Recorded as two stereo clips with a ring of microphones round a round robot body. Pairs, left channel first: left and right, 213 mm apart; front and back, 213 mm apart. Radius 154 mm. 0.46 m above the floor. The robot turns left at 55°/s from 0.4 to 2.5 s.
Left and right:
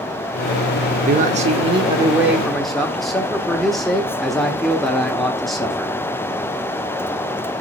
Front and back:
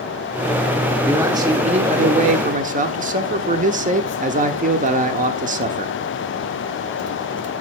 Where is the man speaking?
100° right, 1.0 m; by 6.0 s straight behind, 1.0 m.